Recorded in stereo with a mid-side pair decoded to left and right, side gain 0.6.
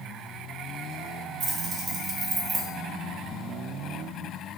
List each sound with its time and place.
1.4 s keys jangling: 55° right, 1.3 m; by 2.7 s 15° right, 0.9 m